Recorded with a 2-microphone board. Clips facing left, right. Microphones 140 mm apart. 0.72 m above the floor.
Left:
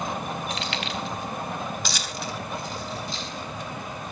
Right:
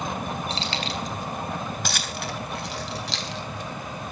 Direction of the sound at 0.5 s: 30° right (ahead or behind).